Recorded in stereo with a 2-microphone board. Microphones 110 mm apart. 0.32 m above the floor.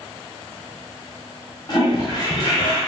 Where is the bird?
No bird in this recording.